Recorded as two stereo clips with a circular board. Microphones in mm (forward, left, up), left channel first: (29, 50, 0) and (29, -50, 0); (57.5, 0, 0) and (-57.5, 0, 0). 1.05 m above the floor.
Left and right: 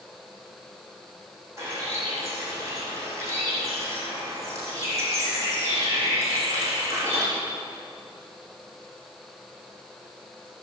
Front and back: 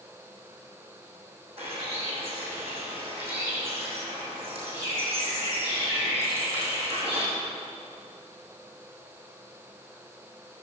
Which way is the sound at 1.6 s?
150° right.